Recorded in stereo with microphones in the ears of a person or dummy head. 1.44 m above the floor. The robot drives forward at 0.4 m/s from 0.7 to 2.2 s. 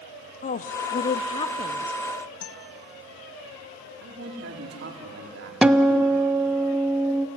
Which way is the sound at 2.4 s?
85° left.